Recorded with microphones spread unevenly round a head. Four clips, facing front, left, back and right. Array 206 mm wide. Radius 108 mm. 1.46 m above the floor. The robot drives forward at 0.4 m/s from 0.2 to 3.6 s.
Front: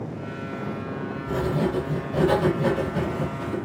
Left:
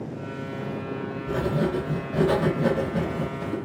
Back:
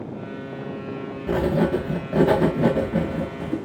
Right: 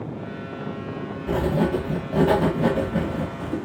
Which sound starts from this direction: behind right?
Writing, at 1.3 s.